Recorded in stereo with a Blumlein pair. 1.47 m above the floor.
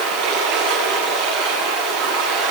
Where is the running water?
50° right, 9.5 m.